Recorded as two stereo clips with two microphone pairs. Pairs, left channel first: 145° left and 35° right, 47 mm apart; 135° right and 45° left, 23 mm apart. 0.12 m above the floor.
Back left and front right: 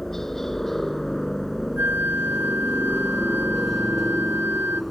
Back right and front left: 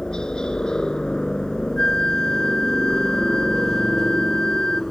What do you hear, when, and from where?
0.0 s a helicopter: 135° right; by 4.9 s 130° right
1.8 s a flute: 75° right